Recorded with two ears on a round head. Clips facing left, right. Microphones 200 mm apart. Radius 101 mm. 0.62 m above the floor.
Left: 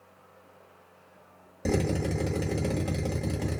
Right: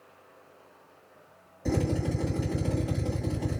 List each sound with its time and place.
1.6 s a drill: 70° left (ahead or behind), 1.3 m